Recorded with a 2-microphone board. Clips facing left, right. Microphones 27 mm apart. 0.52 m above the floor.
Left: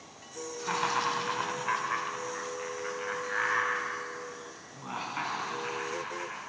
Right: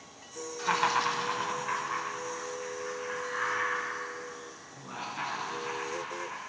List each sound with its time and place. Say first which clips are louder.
0.6 s laughter: right 3 dB; 25° right (ahead or behind), 1.3 m; by 6.4 s 60° left (ahead or behind), 5 m